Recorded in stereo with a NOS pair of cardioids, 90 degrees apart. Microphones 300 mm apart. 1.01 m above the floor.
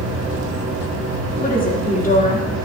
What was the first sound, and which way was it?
A machine running, 45° right.